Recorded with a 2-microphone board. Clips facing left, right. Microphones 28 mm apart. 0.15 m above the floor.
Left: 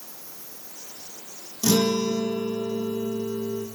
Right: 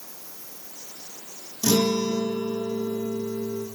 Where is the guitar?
20° left (ahead or behind), 2.5 m.